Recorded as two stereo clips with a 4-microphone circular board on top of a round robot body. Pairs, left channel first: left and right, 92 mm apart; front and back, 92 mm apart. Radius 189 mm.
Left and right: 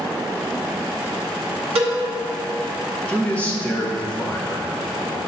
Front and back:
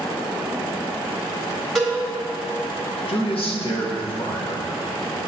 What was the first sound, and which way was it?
A cowbell, 85° right.